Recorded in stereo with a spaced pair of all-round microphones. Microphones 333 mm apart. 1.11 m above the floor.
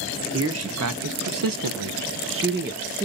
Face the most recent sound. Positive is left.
turn(degrees=-20)  # may be behind; listen again after turning